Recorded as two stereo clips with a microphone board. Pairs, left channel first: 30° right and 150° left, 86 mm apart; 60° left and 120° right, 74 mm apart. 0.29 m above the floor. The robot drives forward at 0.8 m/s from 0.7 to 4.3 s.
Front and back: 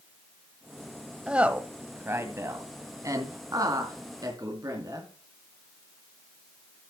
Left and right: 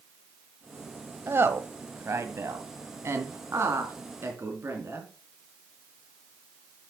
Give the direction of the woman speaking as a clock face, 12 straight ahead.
5 o'clock.